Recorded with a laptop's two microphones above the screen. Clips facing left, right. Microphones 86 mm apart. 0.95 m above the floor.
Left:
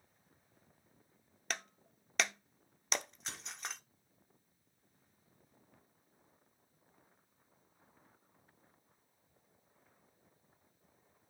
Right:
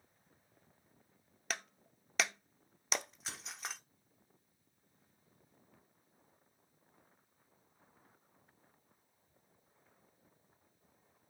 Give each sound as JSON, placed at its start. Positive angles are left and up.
{"t": 1.5, "sound": "breaking glass", "side_deg": 0, "distance_m": 0.6}